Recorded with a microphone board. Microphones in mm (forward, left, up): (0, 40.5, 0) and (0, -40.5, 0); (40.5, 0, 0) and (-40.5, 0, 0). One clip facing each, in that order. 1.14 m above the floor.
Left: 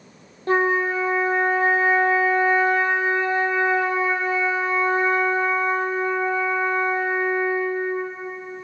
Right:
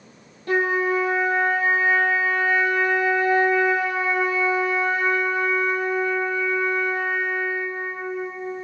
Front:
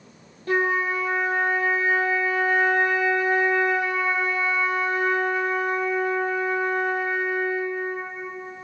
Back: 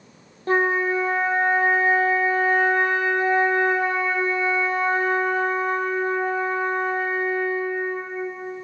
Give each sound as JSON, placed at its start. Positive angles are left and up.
{"t": 0.5, "sound": "a flute", "azimuth_deg": 135, "distance_m": 0.8}